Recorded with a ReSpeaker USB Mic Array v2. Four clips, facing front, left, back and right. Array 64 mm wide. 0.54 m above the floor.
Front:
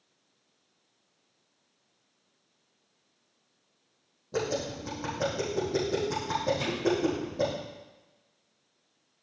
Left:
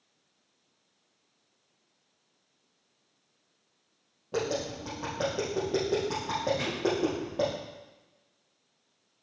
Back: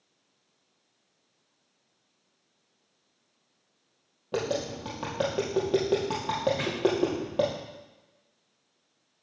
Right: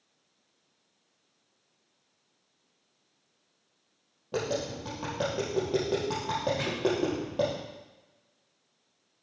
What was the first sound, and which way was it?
Tapping, 175° right.